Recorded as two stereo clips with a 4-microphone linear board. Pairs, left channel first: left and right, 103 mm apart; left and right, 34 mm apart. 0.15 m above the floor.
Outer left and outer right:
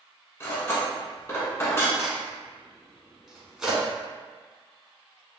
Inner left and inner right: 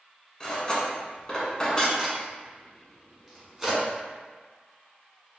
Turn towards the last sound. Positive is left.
turn(degrees=-5)  # may be behind; listen again after turning